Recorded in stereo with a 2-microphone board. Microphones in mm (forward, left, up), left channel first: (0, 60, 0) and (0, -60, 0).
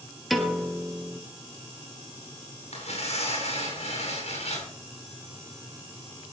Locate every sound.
0.3 s a piano: centre (ahead or behind), 1.7 m
2.7 s tearing paper: 75° left (ahead or behind), 8.5 m